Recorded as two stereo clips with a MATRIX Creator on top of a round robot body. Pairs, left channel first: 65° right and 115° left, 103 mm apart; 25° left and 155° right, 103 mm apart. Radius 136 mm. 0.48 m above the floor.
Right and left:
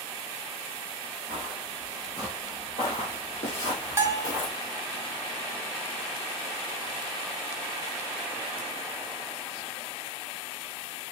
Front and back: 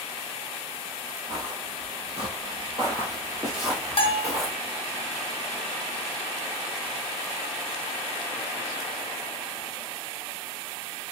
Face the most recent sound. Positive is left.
turn(degrees=50)